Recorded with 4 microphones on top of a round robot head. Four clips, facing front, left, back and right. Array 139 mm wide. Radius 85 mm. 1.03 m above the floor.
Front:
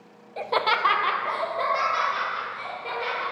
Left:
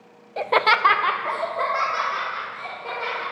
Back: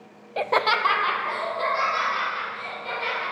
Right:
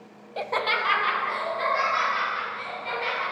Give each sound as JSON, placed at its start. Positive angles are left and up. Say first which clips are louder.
{"t": 0.4, "sound": "laughter", "louder": "left 8 dB, back 2 dB", "azimuth_deg": 155, "distance_m": 0.5}